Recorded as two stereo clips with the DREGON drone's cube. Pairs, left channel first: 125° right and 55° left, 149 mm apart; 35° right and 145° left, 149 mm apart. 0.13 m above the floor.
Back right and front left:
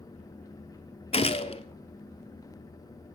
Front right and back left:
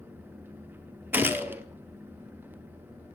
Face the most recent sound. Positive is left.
turn(degrees=-145)